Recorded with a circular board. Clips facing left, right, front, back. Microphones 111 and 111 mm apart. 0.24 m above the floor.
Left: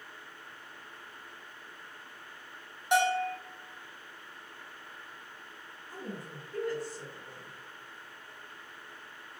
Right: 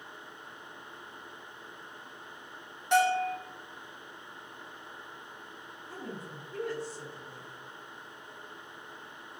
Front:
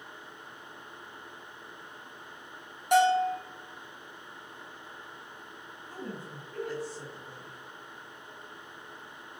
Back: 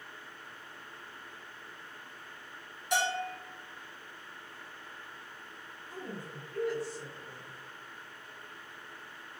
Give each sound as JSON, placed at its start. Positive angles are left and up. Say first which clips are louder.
{"t": 2.9, "sound": "a bell", "louder": "right 2 dB, front 10 dB", "azimuth_deg": 15, "distance_m": 1.9}
{"t": 5.9, "sound": "a woman speaking", "louder": "even, front 2 dB", "azimuth_deg": -30, "distance_m": 1.7}